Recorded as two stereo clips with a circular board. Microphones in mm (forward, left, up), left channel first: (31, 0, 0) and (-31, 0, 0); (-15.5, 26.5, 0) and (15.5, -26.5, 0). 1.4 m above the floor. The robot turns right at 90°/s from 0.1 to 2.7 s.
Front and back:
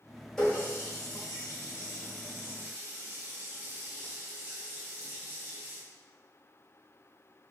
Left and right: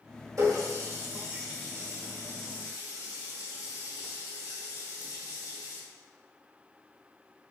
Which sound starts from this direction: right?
A running tap, at 0.4 s.